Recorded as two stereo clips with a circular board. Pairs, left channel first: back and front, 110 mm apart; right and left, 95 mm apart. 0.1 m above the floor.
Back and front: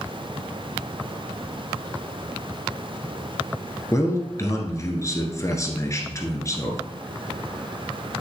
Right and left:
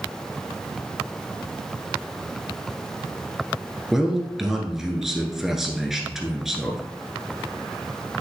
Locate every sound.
3.9 s a man speaking: 170° left, 1.4 m